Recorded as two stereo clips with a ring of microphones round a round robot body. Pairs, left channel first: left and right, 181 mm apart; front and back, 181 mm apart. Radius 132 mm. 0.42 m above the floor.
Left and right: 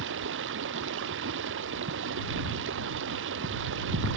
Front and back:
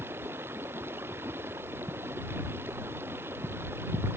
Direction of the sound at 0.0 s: 100° right.